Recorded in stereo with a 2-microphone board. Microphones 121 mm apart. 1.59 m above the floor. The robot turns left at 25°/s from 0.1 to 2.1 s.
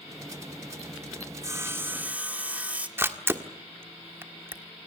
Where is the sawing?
25° right (ahead or behind), 1.2 m; by 2.9 s 10° right (ahead or behind), 1.2 m.